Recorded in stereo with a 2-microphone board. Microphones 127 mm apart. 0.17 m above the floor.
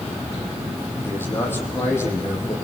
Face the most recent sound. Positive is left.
turn(degrees=20)  # may be behind; listen again after turning